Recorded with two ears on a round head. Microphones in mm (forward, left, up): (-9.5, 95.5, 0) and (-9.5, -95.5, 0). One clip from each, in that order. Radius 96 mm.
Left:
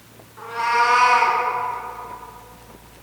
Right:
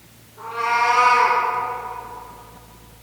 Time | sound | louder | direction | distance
0.4 | a cat meowing | left 1 dB | 55° left (ahead or behind) | 2.5 m